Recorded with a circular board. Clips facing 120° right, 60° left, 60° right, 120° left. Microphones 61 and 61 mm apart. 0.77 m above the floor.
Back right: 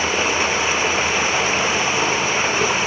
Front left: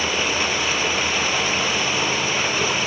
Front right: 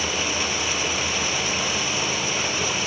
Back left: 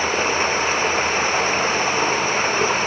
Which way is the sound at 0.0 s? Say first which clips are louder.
Back right 3 dB, back left 6 dB; 170° left.